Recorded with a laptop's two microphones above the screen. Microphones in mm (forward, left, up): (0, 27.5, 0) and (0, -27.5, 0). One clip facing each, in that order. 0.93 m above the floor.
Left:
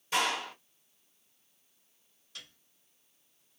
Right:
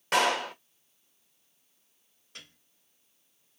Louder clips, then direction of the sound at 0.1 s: Right 5 dB; 65° right (ahead or behind).